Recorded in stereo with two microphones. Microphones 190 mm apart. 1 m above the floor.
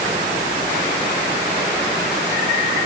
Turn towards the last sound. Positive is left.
No sound to turn to.